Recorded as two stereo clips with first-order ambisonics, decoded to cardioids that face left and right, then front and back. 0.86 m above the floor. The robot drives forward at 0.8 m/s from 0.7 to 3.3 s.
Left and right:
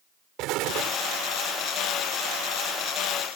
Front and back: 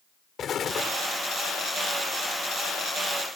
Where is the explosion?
60° right; by 1.0 s 65° right.